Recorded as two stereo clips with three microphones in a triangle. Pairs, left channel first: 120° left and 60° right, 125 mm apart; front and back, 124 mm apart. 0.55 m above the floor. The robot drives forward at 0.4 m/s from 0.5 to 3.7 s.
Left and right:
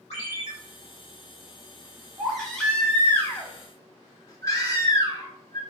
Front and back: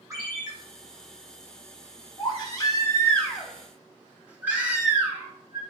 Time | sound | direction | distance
0.1 | a ringtone | 120° left | 1.3 m
2.2 | a baby crying | 30° left | 0.8 m